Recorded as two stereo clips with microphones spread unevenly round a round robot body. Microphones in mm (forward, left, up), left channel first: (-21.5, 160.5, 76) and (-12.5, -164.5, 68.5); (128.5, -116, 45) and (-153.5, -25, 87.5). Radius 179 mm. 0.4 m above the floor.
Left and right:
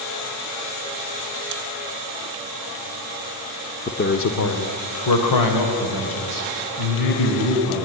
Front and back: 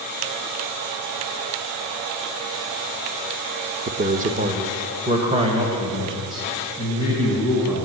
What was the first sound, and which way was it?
A man speaking, 120° left.